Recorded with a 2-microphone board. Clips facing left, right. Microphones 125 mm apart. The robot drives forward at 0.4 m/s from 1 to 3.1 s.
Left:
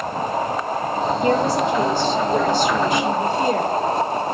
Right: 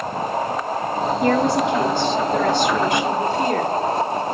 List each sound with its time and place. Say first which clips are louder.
1.2 s a woman speaking: right 1 dB; 60° right (ahead or behind), 4 m; by 3.7 s 55° right (ahead or behind), 4.5 m